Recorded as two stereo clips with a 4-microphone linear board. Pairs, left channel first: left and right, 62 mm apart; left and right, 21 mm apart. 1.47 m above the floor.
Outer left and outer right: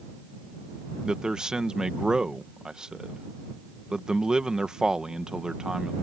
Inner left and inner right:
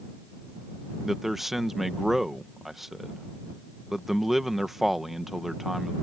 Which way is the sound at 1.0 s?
10° right (ahead or behind).